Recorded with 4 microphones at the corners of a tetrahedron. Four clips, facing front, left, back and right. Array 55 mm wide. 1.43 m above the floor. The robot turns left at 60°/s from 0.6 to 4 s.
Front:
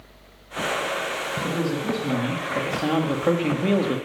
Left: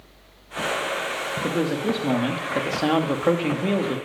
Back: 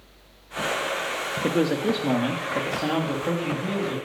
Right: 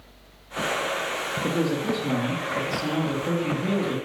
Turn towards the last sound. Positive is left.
turn(degrees=20)